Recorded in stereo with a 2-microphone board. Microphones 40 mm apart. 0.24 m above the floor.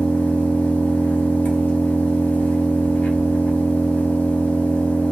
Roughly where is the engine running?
Left.